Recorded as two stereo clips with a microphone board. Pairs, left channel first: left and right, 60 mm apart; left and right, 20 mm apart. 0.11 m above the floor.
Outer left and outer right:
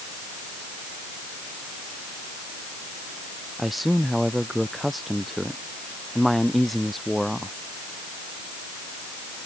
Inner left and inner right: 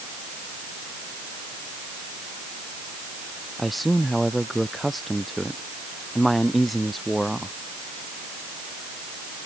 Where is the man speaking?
Centre (ahead or behind); by 7.5 s 5° left (ahead or behind).